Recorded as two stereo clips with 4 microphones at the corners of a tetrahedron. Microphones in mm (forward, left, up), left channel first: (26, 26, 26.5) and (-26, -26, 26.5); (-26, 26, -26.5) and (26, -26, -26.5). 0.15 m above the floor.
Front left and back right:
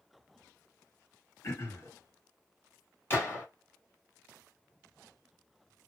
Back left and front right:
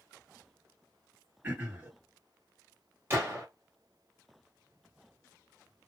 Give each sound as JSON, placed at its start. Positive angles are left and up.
{"t": 1.4, "sound": "throat clearing", "azimuth_deg": 10, "distance_m": 2.0}
{"t": 3.1, "sound": "a gunshot", "azimuth_deg": -5, "distance_m": 1.7}